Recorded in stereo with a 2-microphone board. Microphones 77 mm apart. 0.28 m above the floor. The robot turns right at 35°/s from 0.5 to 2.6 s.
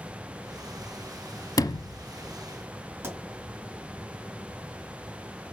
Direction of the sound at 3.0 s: 30° right (ahead or behind).